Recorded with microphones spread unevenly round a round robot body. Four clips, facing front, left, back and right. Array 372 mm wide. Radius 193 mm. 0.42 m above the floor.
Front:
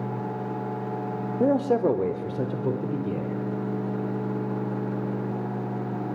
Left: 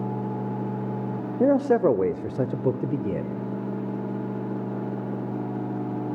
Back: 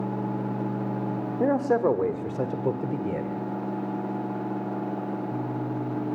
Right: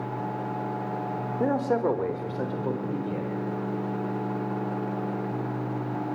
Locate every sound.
1.4 s a man speaking: 65° left, 1.3 m; by 3.3 s 95° left, 2.0 m